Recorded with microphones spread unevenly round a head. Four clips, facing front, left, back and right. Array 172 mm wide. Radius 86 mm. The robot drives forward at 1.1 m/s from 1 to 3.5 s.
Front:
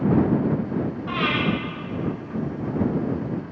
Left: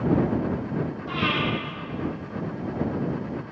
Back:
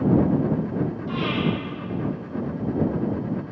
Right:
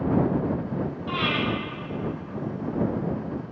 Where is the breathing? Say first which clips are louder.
Even, front 1 dB; straight ahead, 6.5 m.